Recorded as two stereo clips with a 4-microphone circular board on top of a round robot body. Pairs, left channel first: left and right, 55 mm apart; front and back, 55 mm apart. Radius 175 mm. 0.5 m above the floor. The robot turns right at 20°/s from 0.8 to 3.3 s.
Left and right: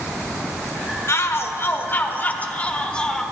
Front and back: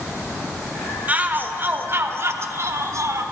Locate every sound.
1.1 s a shout: 120° left, 1.2 m; by 3.2 s 165° left, 1.2 m